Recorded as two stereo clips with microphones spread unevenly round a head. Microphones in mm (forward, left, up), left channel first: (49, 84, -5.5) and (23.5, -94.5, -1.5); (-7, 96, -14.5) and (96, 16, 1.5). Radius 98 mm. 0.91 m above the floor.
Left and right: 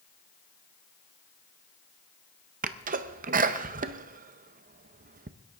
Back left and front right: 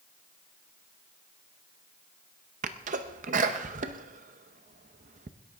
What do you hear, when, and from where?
2.6 s a sneeze: 65° right, 0.6 m